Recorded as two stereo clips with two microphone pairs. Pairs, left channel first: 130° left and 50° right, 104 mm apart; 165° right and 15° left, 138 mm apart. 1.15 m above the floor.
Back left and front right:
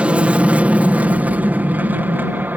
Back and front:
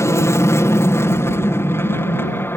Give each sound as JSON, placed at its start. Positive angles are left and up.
{"t": 0.0, "sound": "an aircraft", "azimuth_deg": -120}